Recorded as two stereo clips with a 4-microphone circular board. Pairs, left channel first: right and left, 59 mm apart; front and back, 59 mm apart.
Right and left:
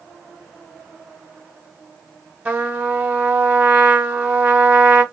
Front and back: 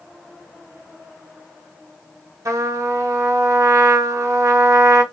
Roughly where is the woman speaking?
No woman speaking in this recording.